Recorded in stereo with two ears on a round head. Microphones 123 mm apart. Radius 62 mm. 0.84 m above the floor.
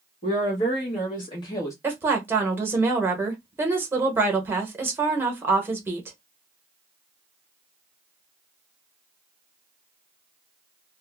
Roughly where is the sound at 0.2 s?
Left.